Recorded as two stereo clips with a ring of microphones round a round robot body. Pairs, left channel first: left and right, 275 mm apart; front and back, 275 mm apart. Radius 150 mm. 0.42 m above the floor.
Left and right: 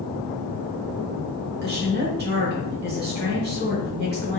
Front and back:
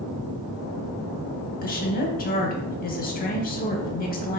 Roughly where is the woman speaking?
Ahead right.